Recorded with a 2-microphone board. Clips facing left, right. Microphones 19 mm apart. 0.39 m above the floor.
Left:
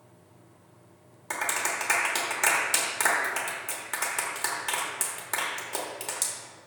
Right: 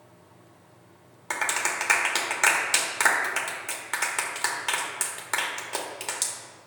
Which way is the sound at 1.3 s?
20° right (ahead or behind).